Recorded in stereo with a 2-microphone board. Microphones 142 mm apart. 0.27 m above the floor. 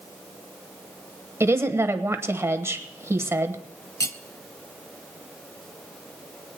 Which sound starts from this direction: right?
A woman speaking, at 1.4 s.